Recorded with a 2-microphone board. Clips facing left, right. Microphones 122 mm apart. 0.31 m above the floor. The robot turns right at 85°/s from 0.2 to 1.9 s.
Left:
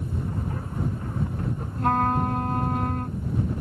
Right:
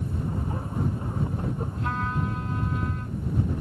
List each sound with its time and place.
1.8 s a trumpet: 45° left (ahead or behind); by 3.2 s 55° left (ahead or behind)